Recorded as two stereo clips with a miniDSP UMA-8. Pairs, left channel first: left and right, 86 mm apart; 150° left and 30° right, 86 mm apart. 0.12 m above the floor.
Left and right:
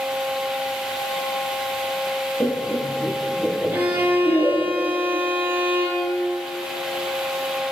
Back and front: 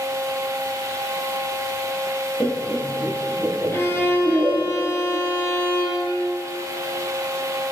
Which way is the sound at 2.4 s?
120° left.